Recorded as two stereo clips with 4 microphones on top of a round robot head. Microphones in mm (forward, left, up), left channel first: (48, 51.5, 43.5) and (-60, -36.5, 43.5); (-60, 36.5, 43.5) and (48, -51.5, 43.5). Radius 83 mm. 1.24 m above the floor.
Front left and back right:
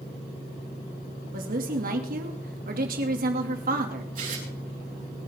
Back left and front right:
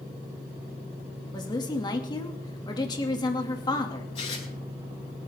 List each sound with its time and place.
1.3 s a woman speaking: 160° right, 2.5 m
4.2 s tearing paper: 170° right, 9 m